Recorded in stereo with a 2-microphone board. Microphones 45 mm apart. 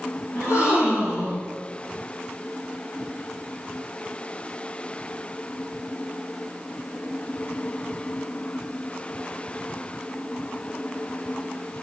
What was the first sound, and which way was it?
A gasp, 75° left (ahead or behind).